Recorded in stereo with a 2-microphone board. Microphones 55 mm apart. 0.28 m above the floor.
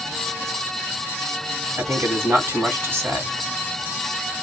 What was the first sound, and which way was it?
A man speaking, 35° right (ahead or behind).